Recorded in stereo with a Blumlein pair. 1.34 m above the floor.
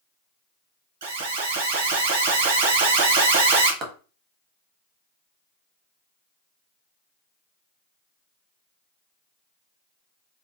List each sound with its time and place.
1.0 s an alarm: 55° right, 0.7 m
3.8 s a clap: 20° right, 0.9 m